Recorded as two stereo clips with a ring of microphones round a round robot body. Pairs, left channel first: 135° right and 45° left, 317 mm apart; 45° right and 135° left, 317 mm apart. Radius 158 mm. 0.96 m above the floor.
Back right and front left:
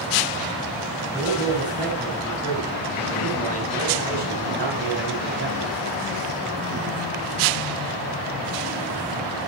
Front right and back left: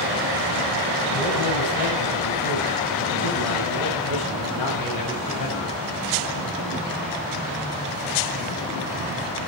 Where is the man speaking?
35° right, 5.5 m; by 5.8 s 10° right, 5.5 m.